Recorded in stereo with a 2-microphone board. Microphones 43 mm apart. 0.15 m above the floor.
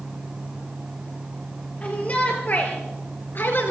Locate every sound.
1.8 s a shout: 35° left (ahead or behind), 3 m; by 3.7 s 55° left (ahead or behind), 2 m